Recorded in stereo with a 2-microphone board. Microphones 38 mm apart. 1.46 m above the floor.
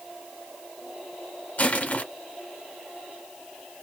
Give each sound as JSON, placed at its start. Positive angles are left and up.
{"t": 1.6, "sound": "crushing", "side_deg": 45, "distance_m": 1.7}